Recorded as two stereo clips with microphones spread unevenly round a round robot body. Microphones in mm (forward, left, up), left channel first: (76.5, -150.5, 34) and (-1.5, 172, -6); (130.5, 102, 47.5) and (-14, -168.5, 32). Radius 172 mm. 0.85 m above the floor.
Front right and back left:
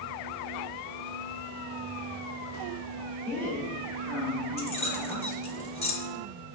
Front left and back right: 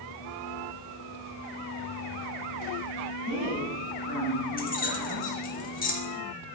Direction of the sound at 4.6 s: Straight ahead.